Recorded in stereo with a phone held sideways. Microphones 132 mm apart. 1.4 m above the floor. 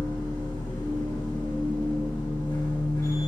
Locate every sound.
0.0 s a machine running: 30° left (ahead or behind), 2 m